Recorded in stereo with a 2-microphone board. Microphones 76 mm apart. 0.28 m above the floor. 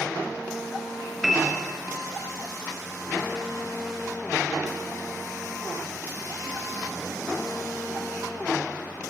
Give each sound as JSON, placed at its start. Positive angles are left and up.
{"t": 1.2, "sound": "a piano", "side_deg": -5, "distance_m": 3.0}